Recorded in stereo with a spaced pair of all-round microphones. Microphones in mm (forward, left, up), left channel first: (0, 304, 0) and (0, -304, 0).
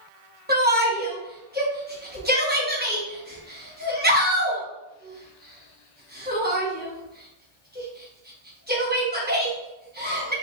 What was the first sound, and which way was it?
A shout, 15° right (ahead or behind).